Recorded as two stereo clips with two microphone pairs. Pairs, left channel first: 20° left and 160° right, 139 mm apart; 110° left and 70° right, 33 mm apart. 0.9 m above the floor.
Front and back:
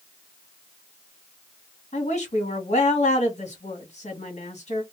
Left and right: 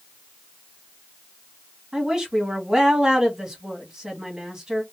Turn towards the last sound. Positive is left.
turn(degrees=0)